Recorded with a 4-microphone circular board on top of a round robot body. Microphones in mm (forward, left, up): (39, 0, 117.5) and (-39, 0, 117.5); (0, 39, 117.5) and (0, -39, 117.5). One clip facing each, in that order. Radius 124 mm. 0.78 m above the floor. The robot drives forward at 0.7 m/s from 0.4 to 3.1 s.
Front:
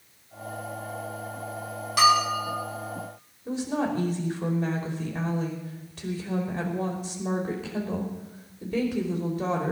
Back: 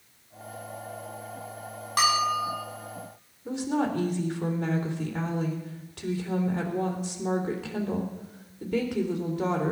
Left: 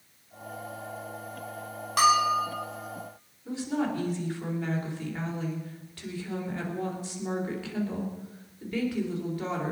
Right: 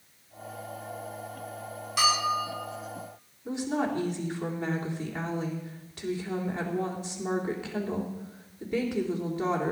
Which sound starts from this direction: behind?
A woman speaking, at 3.5 s.